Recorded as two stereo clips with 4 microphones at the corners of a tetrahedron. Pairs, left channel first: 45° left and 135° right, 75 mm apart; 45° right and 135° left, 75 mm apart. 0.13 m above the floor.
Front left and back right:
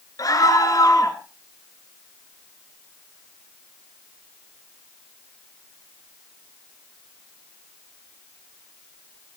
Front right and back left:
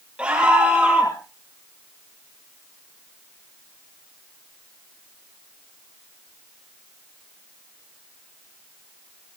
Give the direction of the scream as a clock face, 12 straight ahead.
10 o'clock.